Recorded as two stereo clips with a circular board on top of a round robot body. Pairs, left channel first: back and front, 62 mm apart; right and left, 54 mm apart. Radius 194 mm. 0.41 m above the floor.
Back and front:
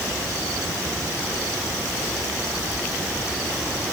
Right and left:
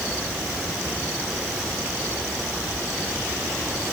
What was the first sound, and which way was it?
Only background noise.